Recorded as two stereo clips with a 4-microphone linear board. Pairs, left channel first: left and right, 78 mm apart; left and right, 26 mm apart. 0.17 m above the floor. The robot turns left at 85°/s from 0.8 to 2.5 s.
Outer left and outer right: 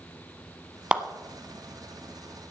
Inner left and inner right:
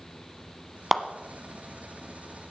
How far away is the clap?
About 1.0 m.